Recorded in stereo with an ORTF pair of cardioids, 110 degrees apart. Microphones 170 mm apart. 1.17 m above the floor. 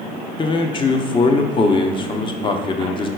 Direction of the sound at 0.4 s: 30° left.